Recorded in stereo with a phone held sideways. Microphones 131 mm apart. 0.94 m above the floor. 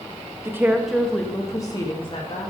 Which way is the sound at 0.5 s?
20° right (ahead or behind).